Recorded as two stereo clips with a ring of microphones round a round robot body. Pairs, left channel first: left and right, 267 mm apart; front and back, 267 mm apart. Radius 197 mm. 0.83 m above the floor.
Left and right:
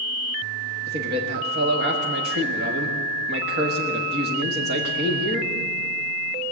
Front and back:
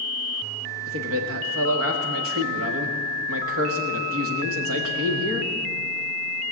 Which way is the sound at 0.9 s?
145° right.